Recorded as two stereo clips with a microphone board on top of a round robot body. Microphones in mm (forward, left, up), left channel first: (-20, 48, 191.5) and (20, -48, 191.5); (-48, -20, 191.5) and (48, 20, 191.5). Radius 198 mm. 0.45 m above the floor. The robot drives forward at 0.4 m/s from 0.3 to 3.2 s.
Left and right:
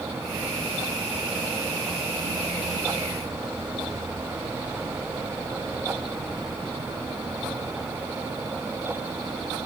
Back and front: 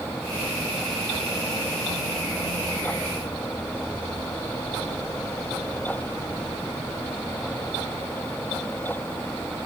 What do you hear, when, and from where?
Only background noise.